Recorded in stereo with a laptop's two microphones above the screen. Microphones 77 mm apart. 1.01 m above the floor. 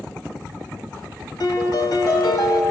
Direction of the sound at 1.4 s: 60° left (ahead or behind).